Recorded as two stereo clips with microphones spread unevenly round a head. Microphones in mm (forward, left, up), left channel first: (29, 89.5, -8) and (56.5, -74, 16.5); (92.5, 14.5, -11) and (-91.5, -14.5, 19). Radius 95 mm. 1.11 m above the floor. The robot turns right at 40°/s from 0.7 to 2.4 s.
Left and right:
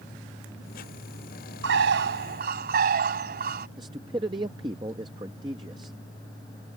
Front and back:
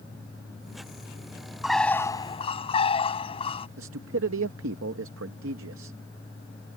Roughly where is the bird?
Right.